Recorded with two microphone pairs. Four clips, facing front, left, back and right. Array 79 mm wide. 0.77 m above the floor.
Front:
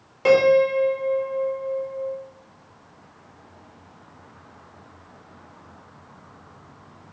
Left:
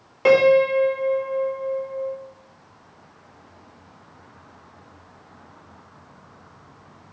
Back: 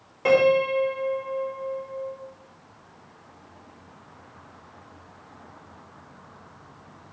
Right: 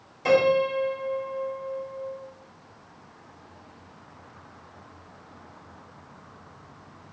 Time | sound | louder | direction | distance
0.2 | a piano | left 6 dB, front 3 dB | 80° left | 1.6 m